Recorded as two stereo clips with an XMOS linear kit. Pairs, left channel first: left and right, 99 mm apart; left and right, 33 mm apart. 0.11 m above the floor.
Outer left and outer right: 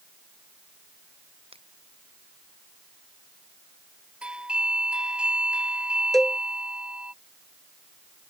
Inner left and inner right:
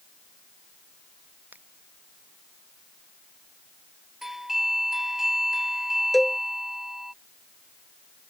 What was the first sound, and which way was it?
A finger snap, 75° right (ahead or behind).